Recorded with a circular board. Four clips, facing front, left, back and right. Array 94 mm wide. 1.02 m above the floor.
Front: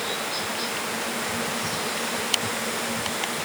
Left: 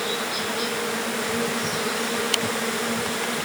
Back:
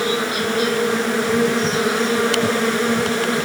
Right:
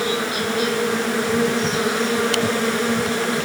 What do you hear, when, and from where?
0.0 s an insect: 155° right